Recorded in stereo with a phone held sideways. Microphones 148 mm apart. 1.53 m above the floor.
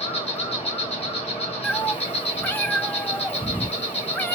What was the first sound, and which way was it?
An insect, 45° left (ahead or behind).